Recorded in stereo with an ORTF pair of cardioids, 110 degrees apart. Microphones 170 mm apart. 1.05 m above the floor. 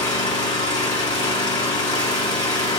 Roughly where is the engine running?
Ahead left.